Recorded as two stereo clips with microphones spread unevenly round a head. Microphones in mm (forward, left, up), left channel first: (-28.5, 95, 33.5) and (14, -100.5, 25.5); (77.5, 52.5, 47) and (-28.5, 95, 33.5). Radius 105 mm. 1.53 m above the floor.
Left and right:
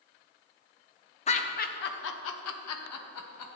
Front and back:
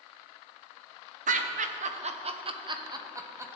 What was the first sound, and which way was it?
Laughter, 160° left.